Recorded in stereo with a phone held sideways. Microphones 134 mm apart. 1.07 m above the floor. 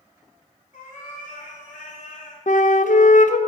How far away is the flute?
About 0.6 m.